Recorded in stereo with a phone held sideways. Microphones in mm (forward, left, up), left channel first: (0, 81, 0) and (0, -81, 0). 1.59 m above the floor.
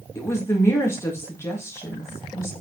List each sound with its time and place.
0.1 s a woman speaking: 15° left (ahead or behind), 3 m